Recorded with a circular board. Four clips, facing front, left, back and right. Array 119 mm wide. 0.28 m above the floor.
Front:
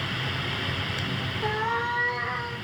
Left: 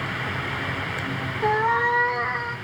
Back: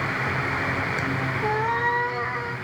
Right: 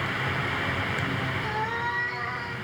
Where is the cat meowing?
100° left, 5.5 m; by 2.5 s 110° left, 5 m.